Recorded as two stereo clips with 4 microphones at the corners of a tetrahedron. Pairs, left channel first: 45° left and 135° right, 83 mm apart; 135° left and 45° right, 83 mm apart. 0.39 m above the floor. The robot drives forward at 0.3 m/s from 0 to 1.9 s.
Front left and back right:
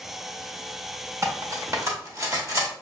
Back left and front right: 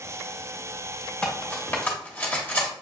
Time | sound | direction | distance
1.2 | cutlery clinking | 160° right | 0.7 m